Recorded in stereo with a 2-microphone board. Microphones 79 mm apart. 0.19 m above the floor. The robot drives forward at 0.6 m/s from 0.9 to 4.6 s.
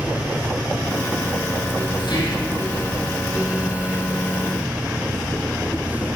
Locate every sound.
2.0 s whispering: 60° left (ahead or behind), 6.5 m; by 2.5 s 65° left (ahead or behind), 6.5 m